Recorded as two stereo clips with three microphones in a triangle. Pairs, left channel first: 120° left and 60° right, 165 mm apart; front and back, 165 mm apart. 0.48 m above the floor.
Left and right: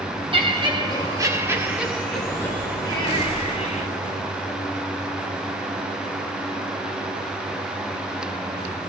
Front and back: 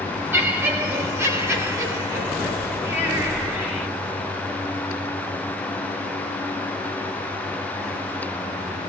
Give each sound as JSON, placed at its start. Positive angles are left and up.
{"t": 0.3, "sound": "laughter", "azimuth_deg": -105, "distance_m": 1.4}